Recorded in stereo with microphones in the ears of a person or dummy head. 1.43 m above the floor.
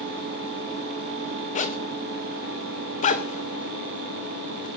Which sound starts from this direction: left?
A zipper, at 1.6 s.